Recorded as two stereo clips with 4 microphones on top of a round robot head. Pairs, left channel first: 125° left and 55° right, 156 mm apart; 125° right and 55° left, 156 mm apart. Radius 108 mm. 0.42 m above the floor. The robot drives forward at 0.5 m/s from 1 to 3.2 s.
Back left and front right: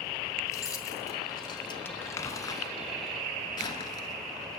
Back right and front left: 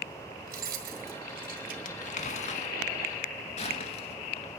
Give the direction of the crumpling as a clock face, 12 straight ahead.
5 o'clock.